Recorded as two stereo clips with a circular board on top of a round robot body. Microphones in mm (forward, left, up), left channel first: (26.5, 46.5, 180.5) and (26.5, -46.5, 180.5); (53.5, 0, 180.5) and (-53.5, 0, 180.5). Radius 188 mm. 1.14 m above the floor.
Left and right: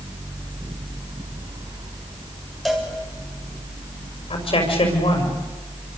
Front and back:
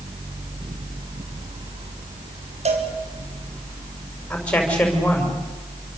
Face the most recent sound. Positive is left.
turn(degrees=80)